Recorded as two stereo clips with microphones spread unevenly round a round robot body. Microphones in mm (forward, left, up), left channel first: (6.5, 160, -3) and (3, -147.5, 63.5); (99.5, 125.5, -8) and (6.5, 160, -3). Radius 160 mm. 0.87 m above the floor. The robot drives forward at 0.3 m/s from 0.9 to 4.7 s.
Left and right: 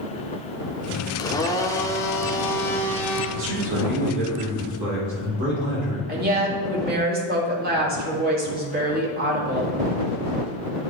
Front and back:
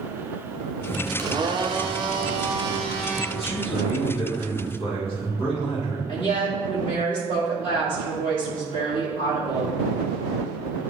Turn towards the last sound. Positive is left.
turn(degrees=-155)